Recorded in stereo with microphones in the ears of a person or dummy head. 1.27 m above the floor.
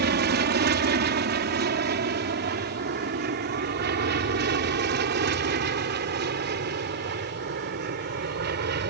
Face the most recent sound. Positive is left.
turn(degrees=-50)  # may be behind; listen again after turning